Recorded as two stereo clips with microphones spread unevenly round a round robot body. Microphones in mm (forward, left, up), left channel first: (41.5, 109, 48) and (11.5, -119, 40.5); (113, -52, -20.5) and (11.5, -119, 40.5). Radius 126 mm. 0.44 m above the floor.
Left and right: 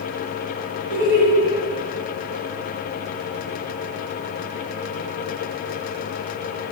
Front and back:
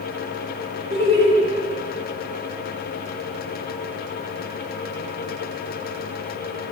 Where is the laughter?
110° right, 4 m.